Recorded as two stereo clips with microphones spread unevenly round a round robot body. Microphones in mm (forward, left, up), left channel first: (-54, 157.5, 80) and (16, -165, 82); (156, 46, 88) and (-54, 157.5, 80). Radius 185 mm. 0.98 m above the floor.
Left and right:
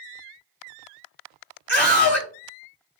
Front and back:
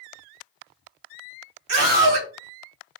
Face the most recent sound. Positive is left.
turn(degrees=165)